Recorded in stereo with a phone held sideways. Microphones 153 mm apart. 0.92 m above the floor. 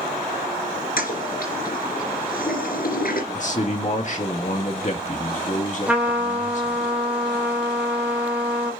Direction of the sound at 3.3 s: 55° left (ahead or behind).